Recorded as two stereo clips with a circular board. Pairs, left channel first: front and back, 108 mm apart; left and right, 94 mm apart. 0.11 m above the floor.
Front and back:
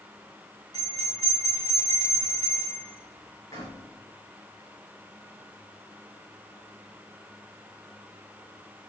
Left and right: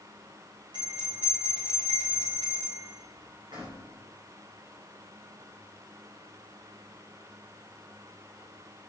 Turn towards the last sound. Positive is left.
turn(degrees=-50)